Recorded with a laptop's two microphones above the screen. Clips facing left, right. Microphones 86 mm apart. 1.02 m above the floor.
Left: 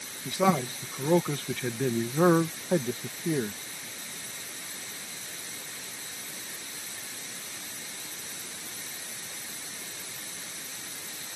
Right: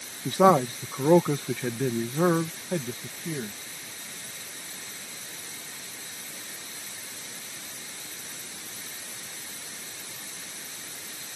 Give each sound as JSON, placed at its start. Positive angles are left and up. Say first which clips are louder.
{"t": 0.2, "sound": "a man speaking", "louder": "right 6 dB", "side_deg": -45}